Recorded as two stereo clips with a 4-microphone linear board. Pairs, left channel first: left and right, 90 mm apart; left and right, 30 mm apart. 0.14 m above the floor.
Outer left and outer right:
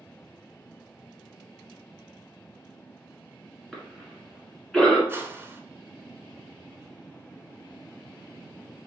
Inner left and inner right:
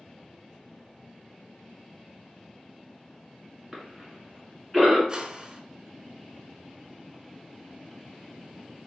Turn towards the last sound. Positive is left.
turn(degrees=-25)  # may be behind; listen again after turning